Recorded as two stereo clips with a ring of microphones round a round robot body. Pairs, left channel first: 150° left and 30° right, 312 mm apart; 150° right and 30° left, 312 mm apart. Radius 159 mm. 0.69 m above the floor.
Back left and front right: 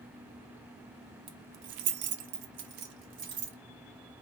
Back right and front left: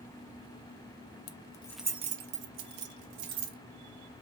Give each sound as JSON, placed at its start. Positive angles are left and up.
{"t": 1.3, "sound": "keys jangling", "azimuth_deg": -105, "distance_m": 0.5}